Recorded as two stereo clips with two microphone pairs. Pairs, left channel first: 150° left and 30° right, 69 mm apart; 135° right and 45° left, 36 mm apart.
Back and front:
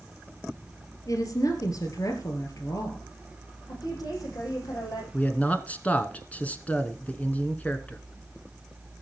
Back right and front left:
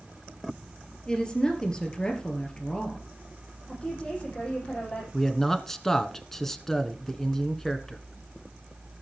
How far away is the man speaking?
About 1.1 m.